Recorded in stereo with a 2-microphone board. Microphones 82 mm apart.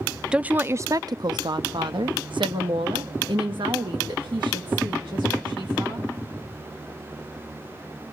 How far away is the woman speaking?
About 0.6 m.